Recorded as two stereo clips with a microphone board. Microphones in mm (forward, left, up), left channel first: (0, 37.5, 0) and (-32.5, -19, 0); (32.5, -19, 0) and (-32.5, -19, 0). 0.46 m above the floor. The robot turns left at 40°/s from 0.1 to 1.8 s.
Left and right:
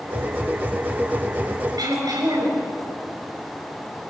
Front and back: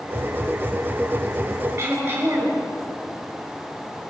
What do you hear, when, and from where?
1.8 s throat clearing: 125° right, 5.5 m